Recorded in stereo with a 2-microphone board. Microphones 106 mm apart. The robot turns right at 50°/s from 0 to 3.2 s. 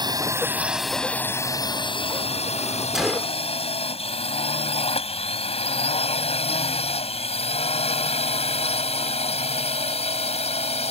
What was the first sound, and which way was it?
A drone, 45° right (ahead or behind).